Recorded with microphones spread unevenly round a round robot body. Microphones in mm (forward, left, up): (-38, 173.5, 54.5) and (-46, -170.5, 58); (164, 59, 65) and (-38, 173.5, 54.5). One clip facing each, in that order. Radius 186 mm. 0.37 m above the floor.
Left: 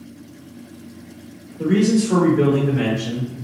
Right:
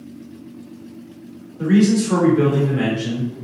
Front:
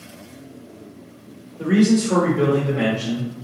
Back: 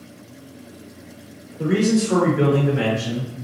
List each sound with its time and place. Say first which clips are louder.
1.6 s a man speaking: right 1 dB, front 2 dB; 95° right, 1.5 m; by 3.3 s 170° left, 1.3 m